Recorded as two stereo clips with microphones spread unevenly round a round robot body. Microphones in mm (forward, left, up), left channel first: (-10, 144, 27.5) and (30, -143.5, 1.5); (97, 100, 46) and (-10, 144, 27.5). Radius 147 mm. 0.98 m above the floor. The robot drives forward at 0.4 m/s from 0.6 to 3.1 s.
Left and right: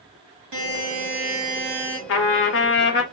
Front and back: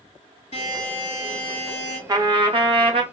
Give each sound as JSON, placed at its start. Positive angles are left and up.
{"t": 0.5, "sound": "a buzzer", "azimuth_deg": -65, "distance_m": 2.0}
{"t": 2.1, "sound": "a trumpet", "azimuth_deg": 105, "distance_m": 0.8}